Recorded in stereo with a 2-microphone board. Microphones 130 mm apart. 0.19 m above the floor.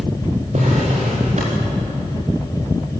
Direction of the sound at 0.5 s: 60° right (ahead or behind).